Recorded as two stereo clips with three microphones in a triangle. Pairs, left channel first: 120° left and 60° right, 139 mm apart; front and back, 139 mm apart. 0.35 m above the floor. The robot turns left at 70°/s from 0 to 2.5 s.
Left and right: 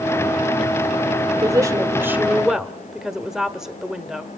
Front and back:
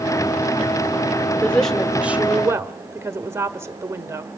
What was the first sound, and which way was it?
A woman speaking, 60° right.